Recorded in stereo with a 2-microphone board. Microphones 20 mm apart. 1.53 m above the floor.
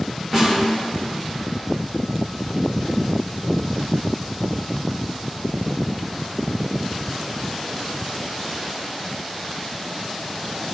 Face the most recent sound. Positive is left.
turn(degrees=-30)  # may be behind; listen again after turning